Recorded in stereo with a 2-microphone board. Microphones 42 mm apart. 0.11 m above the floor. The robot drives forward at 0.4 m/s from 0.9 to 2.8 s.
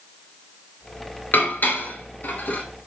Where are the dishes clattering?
45° left (ahead or behind), 1.0 m; by 2.6 s 40° left (ahead or behind), 1.2 m.